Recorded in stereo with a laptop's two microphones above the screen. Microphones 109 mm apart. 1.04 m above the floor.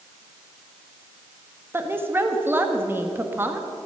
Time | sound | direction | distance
1.7 | a woman speaking | 20° right (ahead or behind) | 1.1 m